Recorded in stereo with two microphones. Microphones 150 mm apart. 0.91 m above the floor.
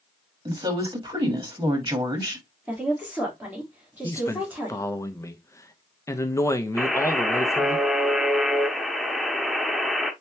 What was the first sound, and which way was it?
A woman speaking, 35° right (ahead or behind).